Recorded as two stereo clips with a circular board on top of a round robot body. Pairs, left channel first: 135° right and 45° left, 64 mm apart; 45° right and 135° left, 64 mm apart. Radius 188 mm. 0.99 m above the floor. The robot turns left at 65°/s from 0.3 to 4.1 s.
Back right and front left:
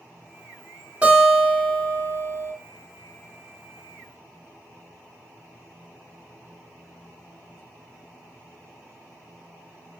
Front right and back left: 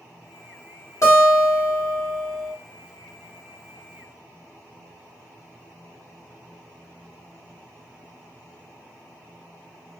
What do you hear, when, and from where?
1.0 s a guitar: 20° right, 1.6 m; by 2.5 s 120° right, 1.6 m